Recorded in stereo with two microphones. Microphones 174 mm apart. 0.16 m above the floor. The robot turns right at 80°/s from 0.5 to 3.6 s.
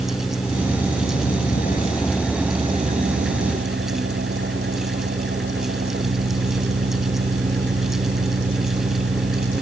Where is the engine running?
35° left; by 9.6 s 75° right.